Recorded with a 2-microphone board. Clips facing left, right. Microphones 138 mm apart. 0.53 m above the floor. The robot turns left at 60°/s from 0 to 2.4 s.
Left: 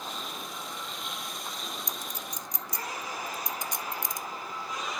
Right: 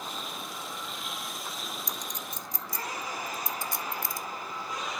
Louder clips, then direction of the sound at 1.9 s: Even; centre (ahead or behind).